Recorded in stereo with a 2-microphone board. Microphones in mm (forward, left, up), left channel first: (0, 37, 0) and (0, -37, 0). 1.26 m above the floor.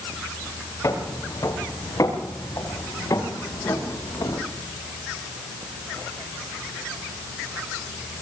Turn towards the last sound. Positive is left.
turn(degrees=60)  # may be behind; listen again after turning